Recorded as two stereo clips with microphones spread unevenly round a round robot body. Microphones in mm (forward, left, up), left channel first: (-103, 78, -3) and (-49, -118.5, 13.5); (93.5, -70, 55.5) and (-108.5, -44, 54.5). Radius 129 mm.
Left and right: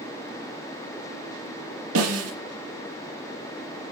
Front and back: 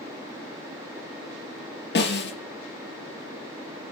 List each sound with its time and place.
1.9 s a snare drum: 40° right, 4.5 m